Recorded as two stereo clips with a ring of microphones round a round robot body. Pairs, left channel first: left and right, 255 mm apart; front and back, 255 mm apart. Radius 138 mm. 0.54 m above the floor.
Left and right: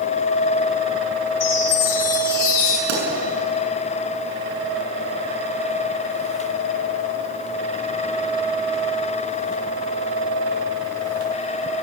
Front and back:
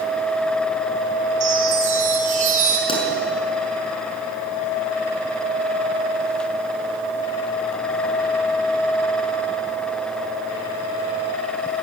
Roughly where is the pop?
Right.